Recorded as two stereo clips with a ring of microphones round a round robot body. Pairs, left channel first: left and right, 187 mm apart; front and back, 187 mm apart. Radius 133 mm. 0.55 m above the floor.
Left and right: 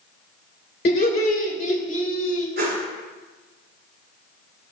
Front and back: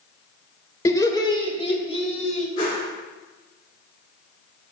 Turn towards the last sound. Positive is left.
turn(degrees=-60)